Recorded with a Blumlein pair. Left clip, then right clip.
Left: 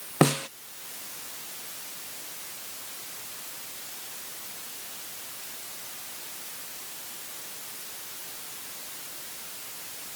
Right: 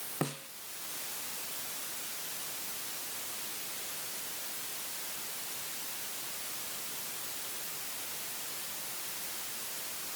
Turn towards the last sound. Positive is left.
turn(degrees=35)